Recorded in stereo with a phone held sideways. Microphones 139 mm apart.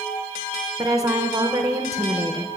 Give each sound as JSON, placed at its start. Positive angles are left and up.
{"t": 0.8, "sound": "a woman speaking", "side_deg": -25, "distance_m": 0.6}